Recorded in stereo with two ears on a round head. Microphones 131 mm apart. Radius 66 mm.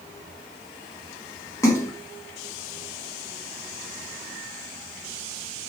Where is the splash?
20° left (ahead or behind), 1.1 m.